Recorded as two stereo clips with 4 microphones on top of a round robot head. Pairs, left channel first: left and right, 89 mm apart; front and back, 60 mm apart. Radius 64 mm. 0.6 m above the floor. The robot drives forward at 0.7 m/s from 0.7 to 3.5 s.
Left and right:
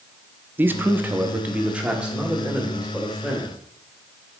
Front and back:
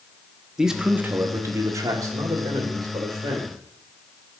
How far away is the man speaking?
About 0.6 m.